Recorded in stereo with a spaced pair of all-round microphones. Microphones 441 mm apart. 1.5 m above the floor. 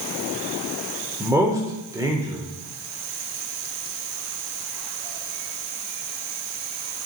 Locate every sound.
1.2 s a man speaking: 5° right (ahead or behind), 0.6 m